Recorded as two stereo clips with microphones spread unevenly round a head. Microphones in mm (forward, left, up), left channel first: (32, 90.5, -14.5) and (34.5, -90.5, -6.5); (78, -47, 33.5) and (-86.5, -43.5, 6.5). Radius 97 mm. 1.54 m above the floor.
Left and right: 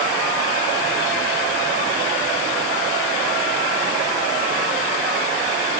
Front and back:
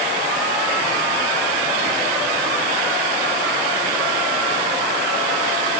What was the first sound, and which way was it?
Only background noise.